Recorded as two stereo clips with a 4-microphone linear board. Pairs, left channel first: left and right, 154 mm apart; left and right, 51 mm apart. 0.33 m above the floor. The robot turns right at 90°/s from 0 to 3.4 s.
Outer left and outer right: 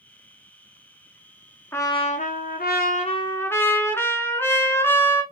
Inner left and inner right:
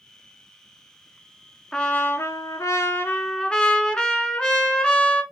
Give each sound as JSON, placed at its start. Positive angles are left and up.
{"t": 1.7, "sound": "a trumpet", "azimuth_deg": 15, "distance_m": 1.0}